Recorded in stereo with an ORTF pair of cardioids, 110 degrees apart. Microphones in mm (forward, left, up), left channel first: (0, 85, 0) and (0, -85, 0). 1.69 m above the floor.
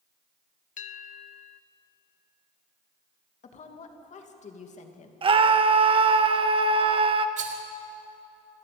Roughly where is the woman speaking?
Ahead left.